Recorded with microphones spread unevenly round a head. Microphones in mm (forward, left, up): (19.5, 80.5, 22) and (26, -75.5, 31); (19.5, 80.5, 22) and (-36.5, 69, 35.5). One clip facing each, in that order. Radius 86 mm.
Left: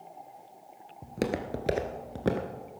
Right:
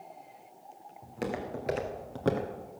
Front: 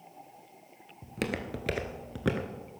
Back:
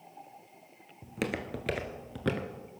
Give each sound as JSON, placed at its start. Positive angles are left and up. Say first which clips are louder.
{"t": 1.0, "sound": "footsteps", "louder": "left 4 dB, even", "azimuth_deg": 120, "distance_m": 1.6}